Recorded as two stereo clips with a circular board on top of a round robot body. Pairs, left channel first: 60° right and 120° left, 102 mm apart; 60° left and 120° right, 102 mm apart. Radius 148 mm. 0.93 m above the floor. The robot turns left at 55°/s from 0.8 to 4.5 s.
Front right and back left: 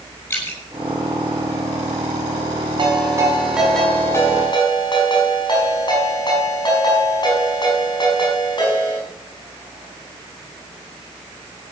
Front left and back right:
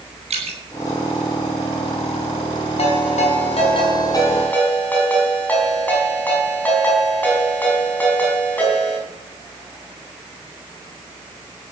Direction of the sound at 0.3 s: 130° right.